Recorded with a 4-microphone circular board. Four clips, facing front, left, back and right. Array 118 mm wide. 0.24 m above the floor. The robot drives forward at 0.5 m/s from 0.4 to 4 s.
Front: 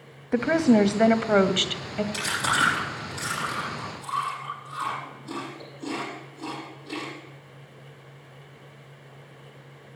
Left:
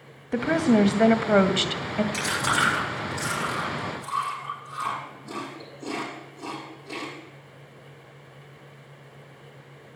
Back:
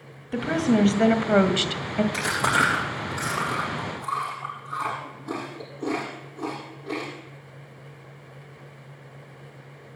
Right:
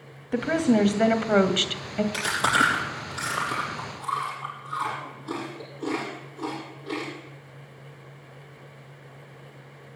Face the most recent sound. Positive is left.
turn(degrees=-165)